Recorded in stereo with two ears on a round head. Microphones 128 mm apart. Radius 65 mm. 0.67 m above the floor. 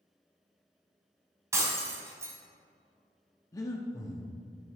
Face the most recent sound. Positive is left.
turn(degrees=25)  # may be behind; listen again after turning